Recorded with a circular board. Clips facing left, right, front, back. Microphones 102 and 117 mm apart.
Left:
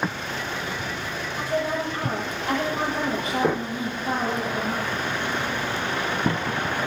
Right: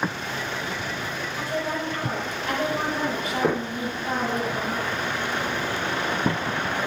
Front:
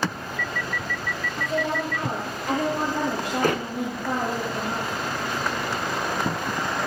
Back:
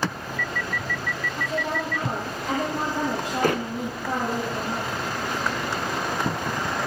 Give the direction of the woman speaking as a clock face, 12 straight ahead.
11 o'clock.